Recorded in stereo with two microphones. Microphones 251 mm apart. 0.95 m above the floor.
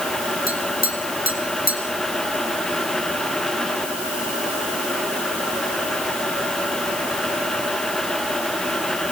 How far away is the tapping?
About 2.5 m.